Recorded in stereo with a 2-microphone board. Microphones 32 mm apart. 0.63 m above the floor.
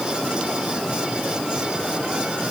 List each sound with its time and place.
Only background noise.